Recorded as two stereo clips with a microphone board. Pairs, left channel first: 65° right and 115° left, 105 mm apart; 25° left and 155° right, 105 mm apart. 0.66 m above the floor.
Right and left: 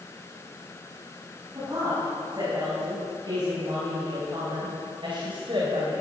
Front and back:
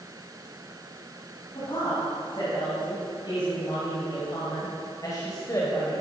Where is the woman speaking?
60° left, 4.5 m; by 6.0 s 85° left, 2.5 m.